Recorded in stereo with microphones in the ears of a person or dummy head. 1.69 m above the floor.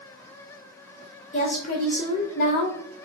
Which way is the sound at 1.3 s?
60° left (ahead or behind).